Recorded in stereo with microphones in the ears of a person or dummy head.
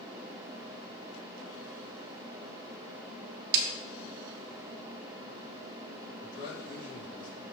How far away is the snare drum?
About 0.7 m.